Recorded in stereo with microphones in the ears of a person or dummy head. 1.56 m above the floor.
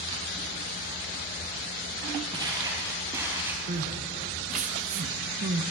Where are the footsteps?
30° right (ahead or behind), 3 m; by 3.6 s 15° right (ahead or behind), 2.5 m.